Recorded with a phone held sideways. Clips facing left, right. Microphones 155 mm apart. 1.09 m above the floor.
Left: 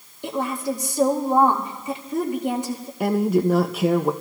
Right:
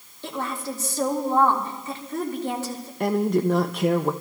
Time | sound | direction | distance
0.2 | a woman speaking | 15° left (ahead or behind) | 2.0 m
3.0 | a woman speaking | 5° left (ahead or behind) | 0.5 m